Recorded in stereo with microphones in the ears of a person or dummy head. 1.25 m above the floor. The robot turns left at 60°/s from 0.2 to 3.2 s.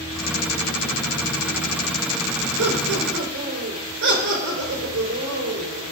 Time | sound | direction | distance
2.6 | laughter | 80° right | 4.5 m